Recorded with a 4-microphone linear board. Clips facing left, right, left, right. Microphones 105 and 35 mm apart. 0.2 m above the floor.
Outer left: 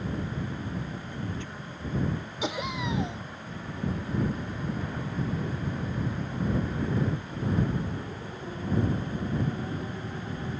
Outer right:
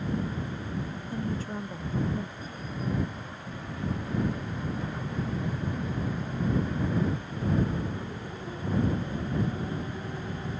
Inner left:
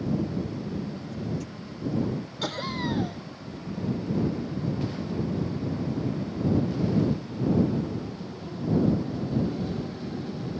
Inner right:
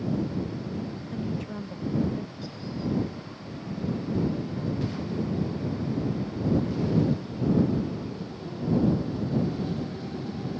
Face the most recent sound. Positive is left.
turn(degrees=80)